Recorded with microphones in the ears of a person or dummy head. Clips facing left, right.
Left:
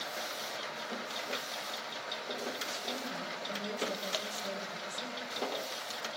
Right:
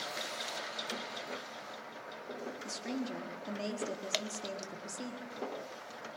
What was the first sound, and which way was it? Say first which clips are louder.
A woman speaking: right 2 dB; 85° right.